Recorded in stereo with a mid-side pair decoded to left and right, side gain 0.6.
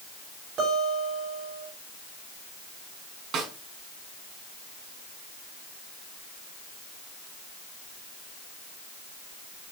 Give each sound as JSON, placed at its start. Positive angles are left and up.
{"t": 0.6, "sound": "a guitar", "azimuth_deg": -55, "distance_m": 7.0}
{"t": 3.3, "sound": "a snare drum", "azimuth_deg": -60, "distance_m": 4.5}